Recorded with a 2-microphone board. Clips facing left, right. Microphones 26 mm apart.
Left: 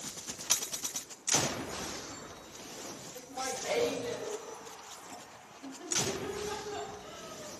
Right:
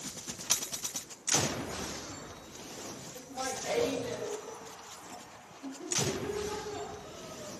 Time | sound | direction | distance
3.1 | laughter | 10° left (ahead or behind) | 1.8 m